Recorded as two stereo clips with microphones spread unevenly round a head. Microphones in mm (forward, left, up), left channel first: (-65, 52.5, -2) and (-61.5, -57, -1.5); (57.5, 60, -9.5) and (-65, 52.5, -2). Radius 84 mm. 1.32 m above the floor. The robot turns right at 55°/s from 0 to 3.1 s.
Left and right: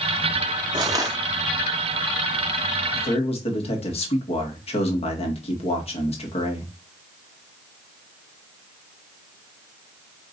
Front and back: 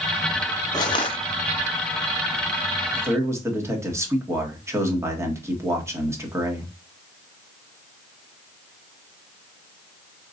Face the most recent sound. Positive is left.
turn(degrees=115)